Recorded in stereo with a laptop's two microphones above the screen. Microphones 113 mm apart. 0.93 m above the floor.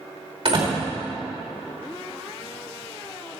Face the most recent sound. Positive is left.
turn(degrees=-60)  # may be behind; listen again after turning